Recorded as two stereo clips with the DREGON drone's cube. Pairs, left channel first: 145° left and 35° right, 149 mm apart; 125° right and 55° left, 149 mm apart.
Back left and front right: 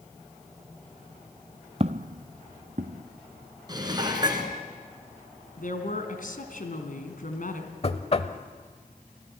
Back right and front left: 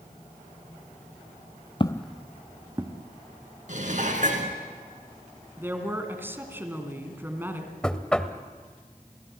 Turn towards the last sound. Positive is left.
turn(degrees=155)